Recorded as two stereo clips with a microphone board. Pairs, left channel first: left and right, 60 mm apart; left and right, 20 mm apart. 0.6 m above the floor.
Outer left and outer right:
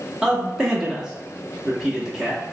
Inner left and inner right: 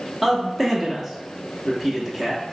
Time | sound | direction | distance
0.2 | a man speaking | 10° right (ahead or behind) | 0.8 m